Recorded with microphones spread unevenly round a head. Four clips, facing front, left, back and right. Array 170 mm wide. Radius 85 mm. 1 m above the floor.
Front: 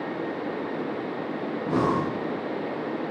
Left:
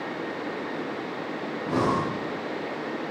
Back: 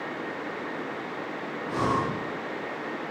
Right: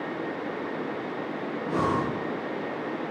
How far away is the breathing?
About 3 m.